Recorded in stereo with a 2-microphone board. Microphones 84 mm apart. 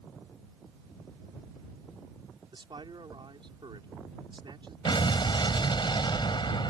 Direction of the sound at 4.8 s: 70° left (ahead or behind).